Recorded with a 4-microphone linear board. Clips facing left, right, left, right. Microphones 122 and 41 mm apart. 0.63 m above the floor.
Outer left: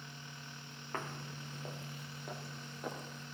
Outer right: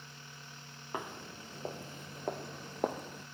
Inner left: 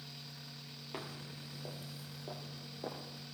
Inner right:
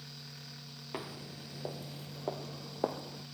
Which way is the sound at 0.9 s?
15° right (ahead or behind).